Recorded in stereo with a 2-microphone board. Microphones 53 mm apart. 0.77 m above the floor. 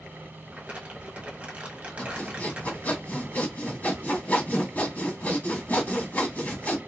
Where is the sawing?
30° left (ahead or behind), 1.2 m.